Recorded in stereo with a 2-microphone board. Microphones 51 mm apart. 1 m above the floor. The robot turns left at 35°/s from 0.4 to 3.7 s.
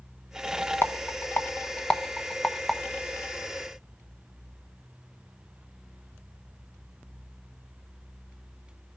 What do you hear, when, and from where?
0.8 s a rattle: 45° left (ahead or behind), 1.0 m; by 2.8 s centre (ahead or behind), 1.0 m